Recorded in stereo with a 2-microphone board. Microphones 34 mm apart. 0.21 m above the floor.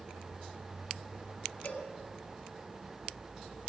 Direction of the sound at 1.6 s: 50° left (ahead or behind).